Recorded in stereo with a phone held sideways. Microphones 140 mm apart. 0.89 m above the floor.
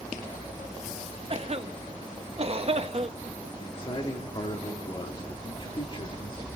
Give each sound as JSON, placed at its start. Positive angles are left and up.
{"t": 1.3, "sound": "a cough", "side_deg": -45, "distance_m": 0.9}
{"t": 3.6, "sound": "a man speaking", "side_deg": 40, "distance_m": 2.0}